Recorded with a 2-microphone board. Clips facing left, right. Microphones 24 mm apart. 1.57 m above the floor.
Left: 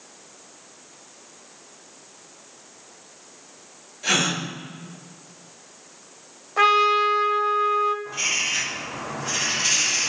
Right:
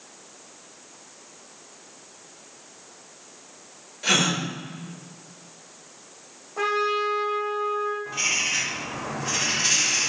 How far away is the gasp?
About 4.5 m.